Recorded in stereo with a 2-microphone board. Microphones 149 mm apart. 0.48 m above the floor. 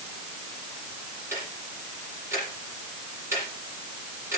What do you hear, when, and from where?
1.3 s ticking: 15° right (ahead or behind), 8 m